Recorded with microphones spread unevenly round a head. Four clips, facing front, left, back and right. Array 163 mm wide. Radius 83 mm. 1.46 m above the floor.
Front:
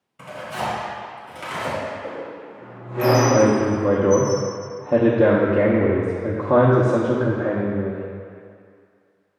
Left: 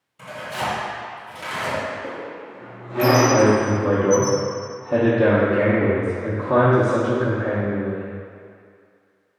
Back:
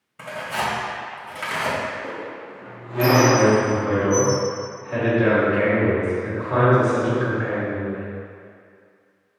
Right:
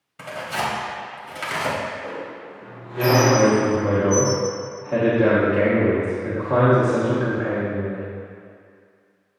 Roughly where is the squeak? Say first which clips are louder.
Even, even; behind left.